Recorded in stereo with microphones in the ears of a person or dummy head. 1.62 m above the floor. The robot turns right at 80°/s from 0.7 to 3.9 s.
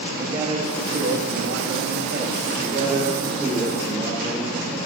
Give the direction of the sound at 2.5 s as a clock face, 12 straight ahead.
3 o'clock.